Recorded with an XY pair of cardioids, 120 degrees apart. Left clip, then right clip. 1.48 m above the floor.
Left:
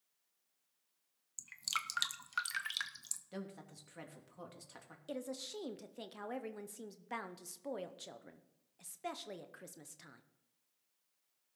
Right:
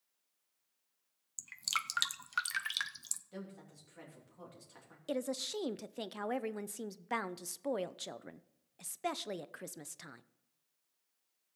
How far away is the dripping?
About 0.7 m.